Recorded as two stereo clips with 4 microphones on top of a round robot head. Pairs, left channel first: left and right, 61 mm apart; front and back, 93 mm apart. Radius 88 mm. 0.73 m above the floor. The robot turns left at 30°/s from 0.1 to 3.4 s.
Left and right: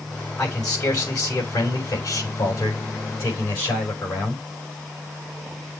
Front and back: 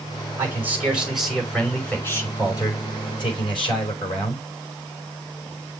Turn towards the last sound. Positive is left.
turn(degrees=30)